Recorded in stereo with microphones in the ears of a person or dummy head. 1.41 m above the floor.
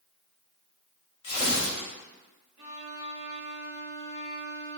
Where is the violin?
35° right (ahead or behind), 1.1 m.